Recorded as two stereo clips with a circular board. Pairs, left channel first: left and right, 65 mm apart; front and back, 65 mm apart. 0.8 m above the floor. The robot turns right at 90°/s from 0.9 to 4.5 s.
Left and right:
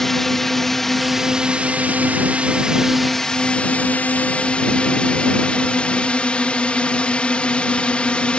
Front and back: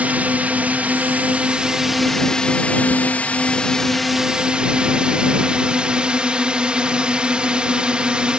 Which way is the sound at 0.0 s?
165° left.